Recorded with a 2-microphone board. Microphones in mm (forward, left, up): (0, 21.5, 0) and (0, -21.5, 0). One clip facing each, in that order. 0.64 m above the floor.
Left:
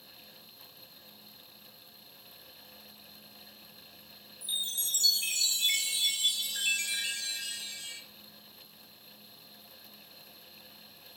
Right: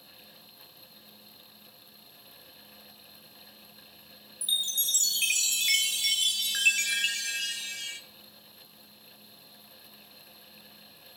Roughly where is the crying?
No crying in this recording.